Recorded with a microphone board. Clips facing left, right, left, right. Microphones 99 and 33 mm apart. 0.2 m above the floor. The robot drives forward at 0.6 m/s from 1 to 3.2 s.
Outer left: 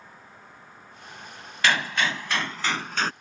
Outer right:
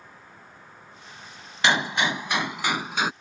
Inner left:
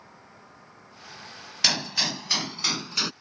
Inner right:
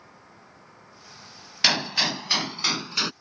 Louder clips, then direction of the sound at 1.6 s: Outer right 2 dB, inner right 3 dB; 20° right (ahead or behind).